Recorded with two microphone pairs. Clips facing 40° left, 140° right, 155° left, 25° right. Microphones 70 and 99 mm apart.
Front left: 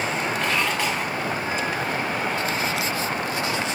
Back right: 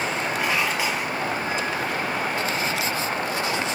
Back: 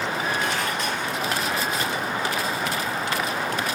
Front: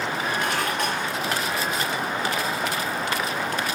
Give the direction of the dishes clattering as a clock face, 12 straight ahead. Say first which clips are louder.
Back right 1 dB, front 1 dB; 2 o'clock.